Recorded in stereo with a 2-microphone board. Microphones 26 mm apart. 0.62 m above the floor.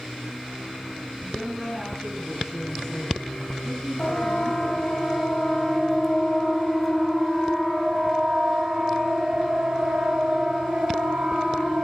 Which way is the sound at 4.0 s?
45° left (ahead or behind).